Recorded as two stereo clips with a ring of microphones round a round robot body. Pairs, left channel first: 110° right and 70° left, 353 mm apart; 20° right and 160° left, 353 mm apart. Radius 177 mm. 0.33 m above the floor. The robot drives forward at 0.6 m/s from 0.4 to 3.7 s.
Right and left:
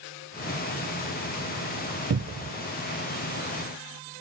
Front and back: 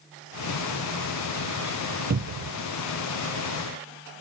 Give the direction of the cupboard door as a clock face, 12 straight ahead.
8 o'clock.